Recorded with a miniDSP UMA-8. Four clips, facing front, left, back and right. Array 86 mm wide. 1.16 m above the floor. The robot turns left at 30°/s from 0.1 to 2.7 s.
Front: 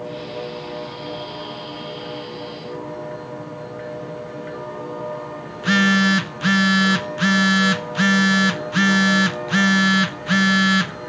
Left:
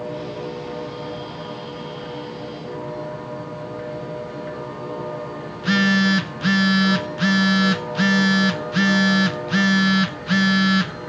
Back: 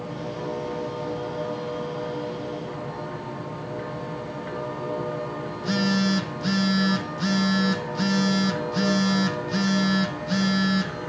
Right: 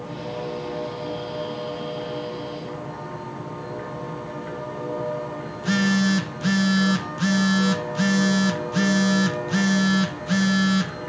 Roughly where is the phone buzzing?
Ahead.